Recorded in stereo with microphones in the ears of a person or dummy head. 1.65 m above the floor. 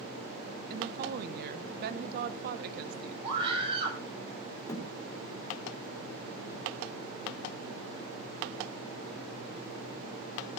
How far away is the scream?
About 7.5 m.